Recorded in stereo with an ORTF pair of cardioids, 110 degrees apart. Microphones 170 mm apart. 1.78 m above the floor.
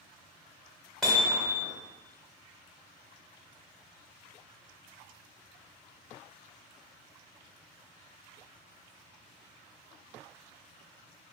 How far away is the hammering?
About 1.1 m.